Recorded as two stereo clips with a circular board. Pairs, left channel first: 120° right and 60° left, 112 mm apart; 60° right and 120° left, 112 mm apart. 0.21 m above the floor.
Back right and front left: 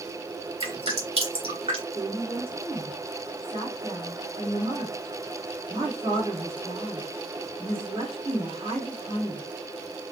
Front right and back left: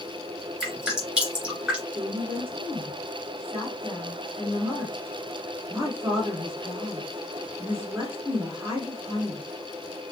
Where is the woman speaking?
60° left, 2 m.